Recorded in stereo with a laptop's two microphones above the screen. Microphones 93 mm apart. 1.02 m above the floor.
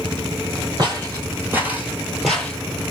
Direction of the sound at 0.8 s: 45° right (ahead or behind).